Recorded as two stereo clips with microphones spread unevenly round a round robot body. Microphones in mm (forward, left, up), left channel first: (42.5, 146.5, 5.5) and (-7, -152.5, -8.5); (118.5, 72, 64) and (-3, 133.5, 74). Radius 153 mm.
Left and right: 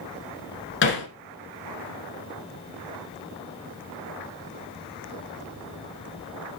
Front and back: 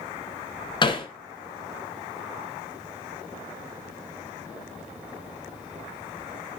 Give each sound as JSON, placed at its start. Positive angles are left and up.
{"t": 0.8, "sound": "hammering", "azimuth_deg": 25, "distance_m": 2.0}